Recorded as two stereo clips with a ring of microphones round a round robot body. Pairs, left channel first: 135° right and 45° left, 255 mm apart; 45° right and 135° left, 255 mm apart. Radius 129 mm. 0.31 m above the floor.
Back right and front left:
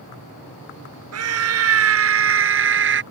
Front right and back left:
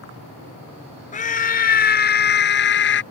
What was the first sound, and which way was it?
A scream, 15° left.